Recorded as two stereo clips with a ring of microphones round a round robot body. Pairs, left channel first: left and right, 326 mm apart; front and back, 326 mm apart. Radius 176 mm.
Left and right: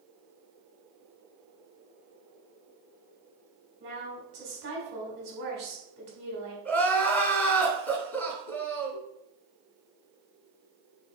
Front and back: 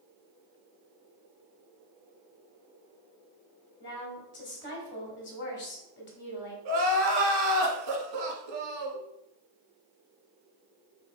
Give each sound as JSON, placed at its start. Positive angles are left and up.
{"t": 3.8, "sound": "a woman speaking", "azimuth_deg": -40, "distance_m": 1.6}
{"t": 6.7, "sound": "crying", "azimuth_deg": 175, "distance_m": 1.2}